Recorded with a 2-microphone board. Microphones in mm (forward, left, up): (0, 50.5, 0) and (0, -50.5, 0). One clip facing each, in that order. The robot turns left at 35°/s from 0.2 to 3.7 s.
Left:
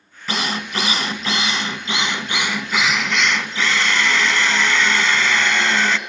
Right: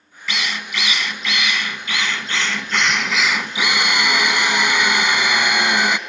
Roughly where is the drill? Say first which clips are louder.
Left 3 dB; left.